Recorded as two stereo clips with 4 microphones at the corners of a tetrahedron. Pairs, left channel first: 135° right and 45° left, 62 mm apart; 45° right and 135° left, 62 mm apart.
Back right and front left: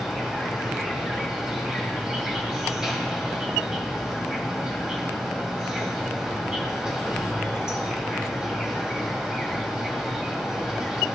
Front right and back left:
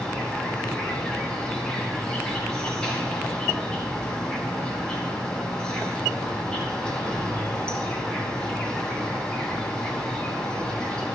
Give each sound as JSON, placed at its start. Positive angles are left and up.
{"t": 0.0, "sound": "an insect", "azimuth_deg": -10, "distance_m": 1.6}